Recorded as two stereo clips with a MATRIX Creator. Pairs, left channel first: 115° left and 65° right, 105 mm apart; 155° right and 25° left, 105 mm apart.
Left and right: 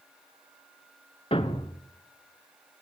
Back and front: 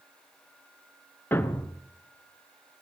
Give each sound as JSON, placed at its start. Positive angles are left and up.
{"t": 1.3, "sound": "a thud", "azimuth_deg": 135, "distance_m": 1.4}